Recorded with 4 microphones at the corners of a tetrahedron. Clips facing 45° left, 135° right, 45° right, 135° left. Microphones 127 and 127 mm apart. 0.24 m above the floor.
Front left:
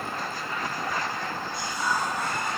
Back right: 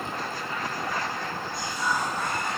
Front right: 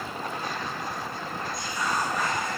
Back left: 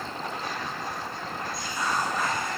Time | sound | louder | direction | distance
1.5 | whispering | even, even | 80° left | 3 m